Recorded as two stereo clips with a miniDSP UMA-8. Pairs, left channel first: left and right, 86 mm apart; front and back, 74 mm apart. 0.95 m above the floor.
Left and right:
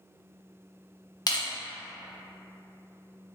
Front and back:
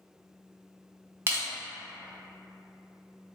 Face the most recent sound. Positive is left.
turn(degrees=130)